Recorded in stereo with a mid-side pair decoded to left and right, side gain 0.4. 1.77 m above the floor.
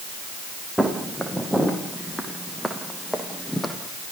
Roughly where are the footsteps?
Ahead.